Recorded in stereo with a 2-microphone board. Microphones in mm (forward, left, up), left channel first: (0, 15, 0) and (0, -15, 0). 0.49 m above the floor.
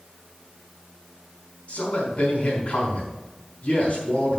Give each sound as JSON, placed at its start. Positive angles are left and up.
{"t": 1.7, "sound": "a man speaking", "side_deg": 50, "distance_m": 4.0}